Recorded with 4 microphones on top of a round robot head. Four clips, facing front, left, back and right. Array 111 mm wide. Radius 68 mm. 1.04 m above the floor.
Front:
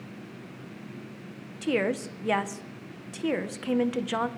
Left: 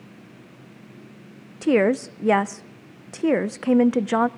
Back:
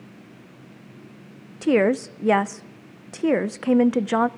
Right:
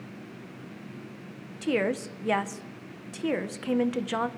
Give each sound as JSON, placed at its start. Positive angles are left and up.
{"t": 1.6, "sound": "a woman speaking", "azimuth_deg": 135, "distance_m": 0.5}